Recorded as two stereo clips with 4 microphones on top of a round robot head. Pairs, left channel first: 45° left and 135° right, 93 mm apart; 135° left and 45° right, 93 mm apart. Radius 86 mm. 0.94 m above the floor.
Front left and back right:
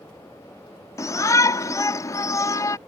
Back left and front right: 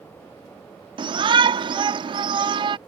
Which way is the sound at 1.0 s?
10° right.